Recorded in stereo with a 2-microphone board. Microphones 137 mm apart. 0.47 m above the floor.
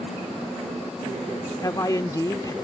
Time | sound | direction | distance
1.6 | a man speaking | 25° left (ahead or behind) | ?